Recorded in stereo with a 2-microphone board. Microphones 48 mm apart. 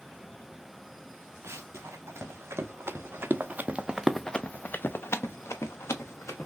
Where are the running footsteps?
70° right (ahead or behind), 2.5 m; by 6.5 s 80° left, 1.9 m.